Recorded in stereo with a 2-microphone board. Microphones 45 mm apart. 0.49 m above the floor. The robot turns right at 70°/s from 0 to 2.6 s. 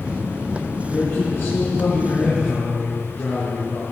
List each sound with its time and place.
0.9 s a man speaking: 15° left, 8 m; by 3.8 s 135° left, 8 m